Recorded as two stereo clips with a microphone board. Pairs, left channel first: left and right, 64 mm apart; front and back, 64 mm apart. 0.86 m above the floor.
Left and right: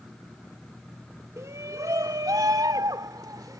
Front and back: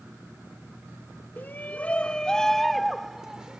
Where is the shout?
55° right; by 3.6 s 100° right.